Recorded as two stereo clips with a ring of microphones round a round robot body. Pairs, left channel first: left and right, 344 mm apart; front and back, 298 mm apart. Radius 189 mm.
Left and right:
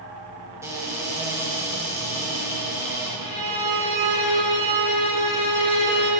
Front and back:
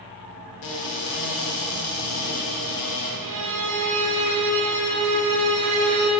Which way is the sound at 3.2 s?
160° left.